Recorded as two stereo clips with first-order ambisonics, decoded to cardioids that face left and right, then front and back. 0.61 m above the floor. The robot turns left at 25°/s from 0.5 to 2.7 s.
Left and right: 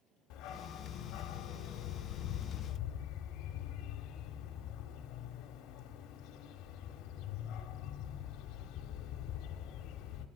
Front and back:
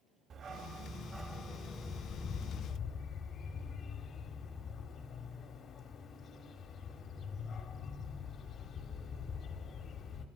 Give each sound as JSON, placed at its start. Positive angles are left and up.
{"t": 0.3, "sound": "a dog barking", "azimuth_deg": 115, "distance_m": 0.9}